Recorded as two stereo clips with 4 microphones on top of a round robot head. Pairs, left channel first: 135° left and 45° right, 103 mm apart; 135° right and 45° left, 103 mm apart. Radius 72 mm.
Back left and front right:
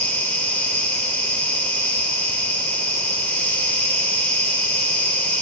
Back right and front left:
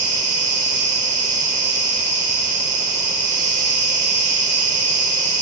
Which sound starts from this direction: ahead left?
An insect, at 0.0 s.